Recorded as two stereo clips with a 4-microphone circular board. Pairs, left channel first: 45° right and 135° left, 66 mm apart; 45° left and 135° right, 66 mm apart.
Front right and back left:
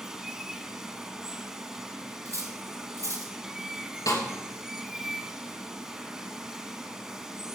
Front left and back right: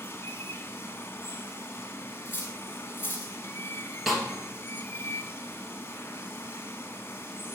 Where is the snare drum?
50° right, 2.5 m.